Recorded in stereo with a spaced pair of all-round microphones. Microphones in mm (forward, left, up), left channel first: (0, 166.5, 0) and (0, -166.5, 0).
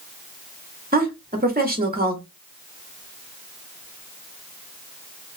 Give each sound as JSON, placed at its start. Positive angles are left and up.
{"t": 0.9, "sound": "a woman speaking", "side_deg": -25, "distance_m": 1.0}